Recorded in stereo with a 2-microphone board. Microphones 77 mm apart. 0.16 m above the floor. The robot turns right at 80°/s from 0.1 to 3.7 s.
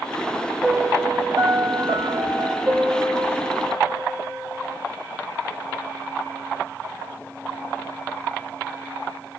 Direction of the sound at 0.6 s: Straight behind.